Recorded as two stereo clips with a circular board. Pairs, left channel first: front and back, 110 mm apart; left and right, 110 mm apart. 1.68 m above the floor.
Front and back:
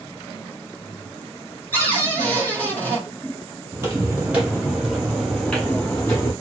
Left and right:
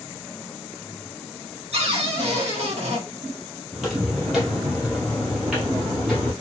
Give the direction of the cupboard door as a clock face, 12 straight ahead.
2 o'clock.